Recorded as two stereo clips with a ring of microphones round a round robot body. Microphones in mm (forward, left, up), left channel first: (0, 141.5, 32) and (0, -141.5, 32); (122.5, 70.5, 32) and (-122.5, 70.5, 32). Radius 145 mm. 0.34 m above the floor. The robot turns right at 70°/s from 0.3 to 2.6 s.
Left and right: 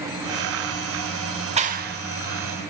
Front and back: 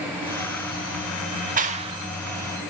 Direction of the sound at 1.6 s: 145° right.